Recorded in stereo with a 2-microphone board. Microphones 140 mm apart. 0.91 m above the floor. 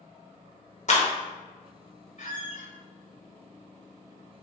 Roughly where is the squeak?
Left.